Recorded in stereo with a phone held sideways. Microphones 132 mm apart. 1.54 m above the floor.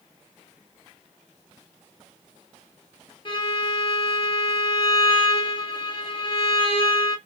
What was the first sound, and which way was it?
A violin, 40° left (ahead or behind).